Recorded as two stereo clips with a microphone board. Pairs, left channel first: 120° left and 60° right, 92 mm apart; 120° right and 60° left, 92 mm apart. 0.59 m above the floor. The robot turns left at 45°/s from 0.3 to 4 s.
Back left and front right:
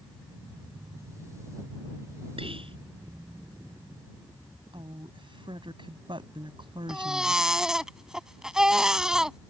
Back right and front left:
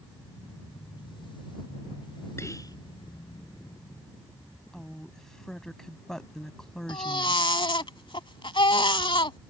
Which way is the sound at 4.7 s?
35° right.